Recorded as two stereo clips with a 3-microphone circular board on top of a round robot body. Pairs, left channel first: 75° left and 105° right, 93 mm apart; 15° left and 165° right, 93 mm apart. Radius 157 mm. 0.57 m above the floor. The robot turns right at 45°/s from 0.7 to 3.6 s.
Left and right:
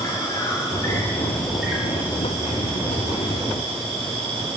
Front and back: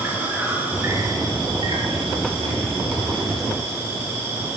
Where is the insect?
125° left, 9 m; by 4.6 s 105° right, 9 m.